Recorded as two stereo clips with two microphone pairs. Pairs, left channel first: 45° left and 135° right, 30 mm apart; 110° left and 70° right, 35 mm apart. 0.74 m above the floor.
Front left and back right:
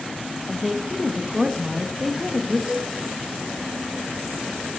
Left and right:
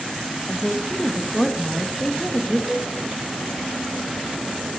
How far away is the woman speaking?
About 0.8 m.